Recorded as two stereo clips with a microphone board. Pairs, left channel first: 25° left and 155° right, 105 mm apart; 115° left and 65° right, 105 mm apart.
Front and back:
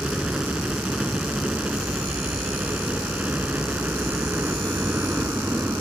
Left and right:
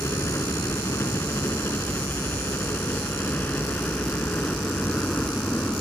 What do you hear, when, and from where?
0.0 s a helicopter: 130° left; by 5.8 s 170° left